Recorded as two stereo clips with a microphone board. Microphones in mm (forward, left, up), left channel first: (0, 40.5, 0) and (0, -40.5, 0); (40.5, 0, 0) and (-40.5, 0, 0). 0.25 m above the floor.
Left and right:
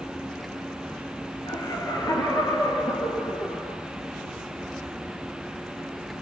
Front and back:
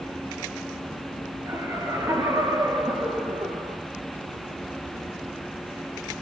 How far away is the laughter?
About 4 m.